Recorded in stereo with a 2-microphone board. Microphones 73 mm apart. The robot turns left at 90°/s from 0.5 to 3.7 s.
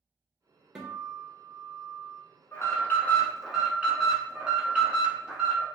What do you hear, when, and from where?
0.8 s a guitar: 165° right, 1.0 m; by 2.2 s 65° left, 1.0 m
2.5 s an alarm: 85° left, 1.2 m; by 5.7 s 25° right, 1.2 m